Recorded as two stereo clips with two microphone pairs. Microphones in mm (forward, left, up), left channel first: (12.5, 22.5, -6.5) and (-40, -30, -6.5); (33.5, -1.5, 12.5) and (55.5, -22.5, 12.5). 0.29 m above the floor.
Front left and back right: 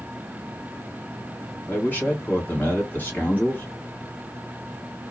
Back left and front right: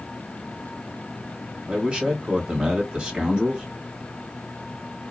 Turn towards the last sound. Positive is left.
turn(degrees=-5)